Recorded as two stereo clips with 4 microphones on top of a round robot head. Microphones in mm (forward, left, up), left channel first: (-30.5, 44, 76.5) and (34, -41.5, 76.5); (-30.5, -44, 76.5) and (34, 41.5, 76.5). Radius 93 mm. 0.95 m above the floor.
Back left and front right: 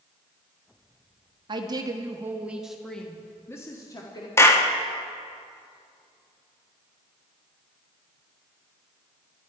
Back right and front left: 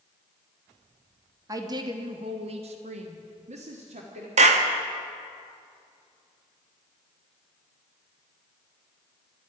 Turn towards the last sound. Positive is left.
turn(degrees=60)